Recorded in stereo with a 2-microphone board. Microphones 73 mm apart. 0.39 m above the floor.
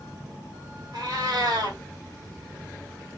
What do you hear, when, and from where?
0.9 s a cat meowing: 65° right (ahead or behind), 1.3 m